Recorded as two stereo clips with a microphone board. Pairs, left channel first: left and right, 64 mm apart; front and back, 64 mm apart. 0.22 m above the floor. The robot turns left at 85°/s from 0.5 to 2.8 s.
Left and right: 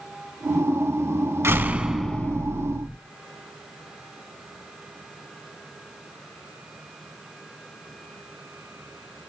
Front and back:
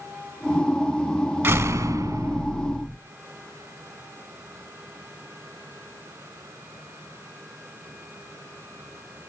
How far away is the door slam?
About 1.2 m.